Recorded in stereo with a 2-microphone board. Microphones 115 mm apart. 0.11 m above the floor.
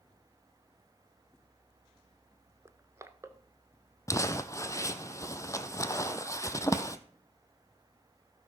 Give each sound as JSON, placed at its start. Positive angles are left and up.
{"t": 2.6, "sound": "crushing", "side_deg": -25, "distance_m": 0.7}
{"t": 4.1, "sound": "crumpling", "side_deg": 30, "distance_m": 0.7}